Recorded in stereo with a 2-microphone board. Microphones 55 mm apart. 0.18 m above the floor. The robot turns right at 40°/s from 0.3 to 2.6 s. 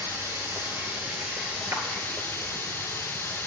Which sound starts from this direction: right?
A clap, at 1.7 s.